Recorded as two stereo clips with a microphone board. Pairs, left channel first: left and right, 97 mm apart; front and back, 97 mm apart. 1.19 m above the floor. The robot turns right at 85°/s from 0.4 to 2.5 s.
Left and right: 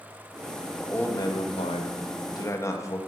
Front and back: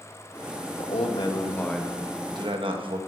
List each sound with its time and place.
0.8 s a man speaking: 5° left, 1.4 m; by 3.0 s 150° left, 1.4 m